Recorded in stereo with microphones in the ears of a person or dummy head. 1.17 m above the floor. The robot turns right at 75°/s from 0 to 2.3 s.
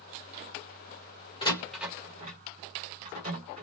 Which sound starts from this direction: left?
A door slam, at 1.4 s.